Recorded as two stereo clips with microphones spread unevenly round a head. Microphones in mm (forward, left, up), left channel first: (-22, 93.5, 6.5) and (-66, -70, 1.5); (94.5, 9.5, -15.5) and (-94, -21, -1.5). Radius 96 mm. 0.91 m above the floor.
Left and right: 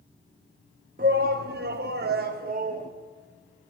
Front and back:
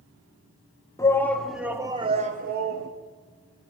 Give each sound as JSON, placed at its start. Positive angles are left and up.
{"t": 1.0, "sound": "a shout", "azimuth_deg": -60, "distance_m": 1.2}